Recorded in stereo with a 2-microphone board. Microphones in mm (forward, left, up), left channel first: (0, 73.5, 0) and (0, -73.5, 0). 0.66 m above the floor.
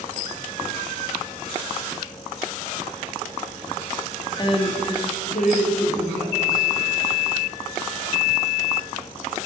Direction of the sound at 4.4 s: 30° left (ahead or behind).